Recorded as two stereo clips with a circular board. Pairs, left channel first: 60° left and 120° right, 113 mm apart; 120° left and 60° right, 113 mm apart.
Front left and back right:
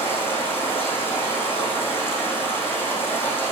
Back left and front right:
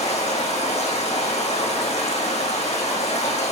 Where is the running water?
130° left, 5 m.